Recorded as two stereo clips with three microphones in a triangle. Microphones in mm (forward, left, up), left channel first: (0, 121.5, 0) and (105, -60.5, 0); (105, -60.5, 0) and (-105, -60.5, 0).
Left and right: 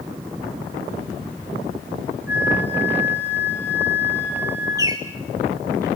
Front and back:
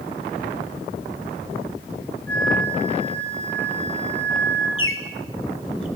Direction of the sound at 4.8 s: 15° left.